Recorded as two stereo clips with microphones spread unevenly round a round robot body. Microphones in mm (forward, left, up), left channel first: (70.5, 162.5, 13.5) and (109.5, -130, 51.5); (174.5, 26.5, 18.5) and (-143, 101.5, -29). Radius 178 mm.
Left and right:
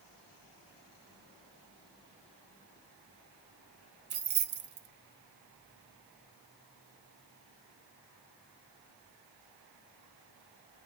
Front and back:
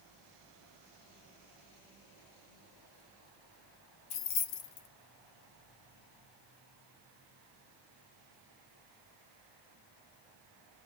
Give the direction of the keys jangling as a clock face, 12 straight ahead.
1 o'clock.